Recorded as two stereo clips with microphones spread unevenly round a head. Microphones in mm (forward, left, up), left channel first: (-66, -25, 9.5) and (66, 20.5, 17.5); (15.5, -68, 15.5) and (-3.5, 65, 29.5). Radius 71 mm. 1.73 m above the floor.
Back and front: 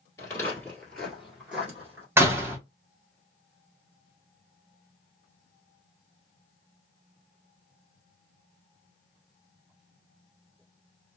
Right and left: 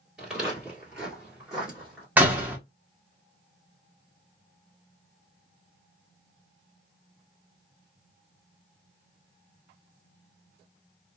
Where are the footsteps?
160° left, 1.8 m; by 2.1 s 35° left, 1.8 m.